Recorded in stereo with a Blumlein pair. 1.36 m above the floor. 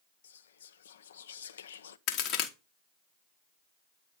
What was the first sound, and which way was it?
Whispering, 65° left.